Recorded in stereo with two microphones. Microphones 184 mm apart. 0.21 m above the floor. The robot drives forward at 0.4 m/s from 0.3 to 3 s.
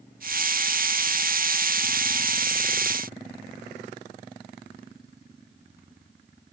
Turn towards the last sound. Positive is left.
No sound to turn to.